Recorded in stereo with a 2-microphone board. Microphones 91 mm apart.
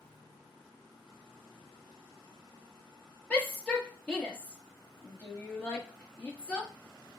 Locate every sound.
3.3 s a shout: 15° left (ahead or behind), 1.1 m